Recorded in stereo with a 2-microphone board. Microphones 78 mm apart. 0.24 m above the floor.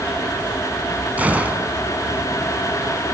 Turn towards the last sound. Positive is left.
turn(degrees=-20)  # may be behind; listen again after turning